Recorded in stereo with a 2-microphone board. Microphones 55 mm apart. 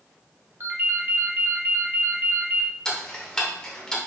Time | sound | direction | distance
0.6 | a ringtone | 45° right (ahead or behind) | 0.9 m
2.9 | ticking | 15° left (ahead or behind) | 1.0 m